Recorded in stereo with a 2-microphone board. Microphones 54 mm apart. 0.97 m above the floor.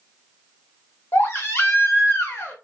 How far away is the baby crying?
About 1.1 m.